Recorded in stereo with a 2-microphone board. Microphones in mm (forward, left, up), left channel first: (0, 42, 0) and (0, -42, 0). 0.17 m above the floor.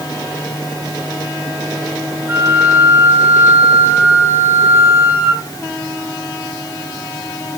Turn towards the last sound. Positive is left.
turn(degrees=-25)  # may be behind; listen again after turning